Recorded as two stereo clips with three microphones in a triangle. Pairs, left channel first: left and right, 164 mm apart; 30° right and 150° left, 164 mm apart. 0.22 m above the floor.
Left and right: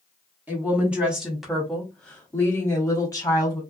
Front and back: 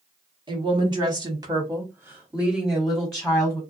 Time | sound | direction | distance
0.5 | a woman speaking | 165° right | 1.4 m